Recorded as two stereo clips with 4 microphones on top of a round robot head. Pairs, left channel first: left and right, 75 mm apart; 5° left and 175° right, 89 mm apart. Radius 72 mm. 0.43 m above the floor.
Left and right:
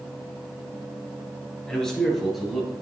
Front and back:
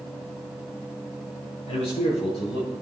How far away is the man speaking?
About 7 m.